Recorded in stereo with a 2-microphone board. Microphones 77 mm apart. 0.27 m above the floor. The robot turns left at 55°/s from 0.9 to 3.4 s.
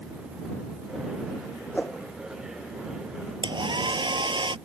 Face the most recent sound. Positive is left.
turn(degrees=-80)